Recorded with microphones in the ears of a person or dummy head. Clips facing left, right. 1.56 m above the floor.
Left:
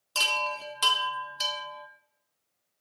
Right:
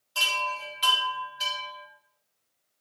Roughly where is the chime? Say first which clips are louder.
Left 1 dB; left.